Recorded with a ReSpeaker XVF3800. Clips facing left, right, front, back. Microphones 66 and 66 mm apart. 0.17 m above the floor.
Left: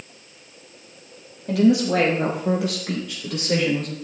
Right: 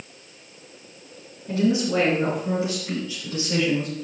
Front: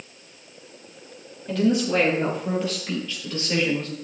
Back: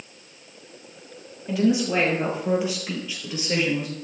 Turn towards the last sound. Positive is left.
turn(degrees=105)